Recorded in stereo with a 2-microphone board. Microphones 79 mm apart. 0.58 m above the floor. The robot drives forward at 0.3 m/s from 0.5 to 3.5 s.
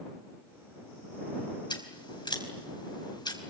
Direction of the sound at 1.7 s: 70° left (ahead or behind).